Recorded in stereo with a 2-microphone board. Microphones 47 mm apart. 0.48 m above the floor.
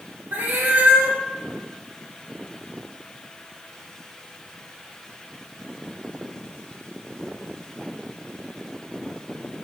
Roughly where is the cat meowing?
Right.